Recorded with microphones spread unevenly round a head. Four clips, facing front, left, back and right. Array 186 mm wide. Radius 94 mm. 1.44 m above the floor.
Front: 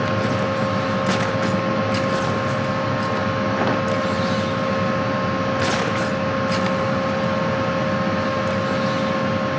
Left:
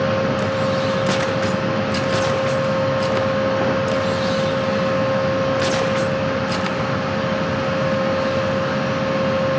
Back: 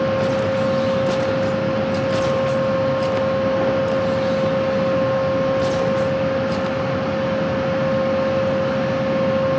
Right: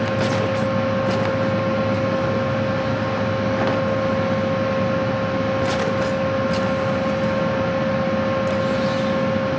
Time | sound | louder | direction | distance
0.0 | a fan | left 1 dB, back 3 dB | 150° left | 1.7 m